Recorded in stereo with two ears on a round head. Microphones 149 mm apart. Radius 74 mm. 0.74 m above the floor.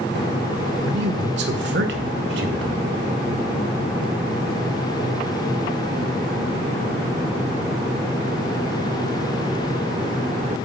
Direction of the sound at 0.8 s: 70° right (ahead or behind).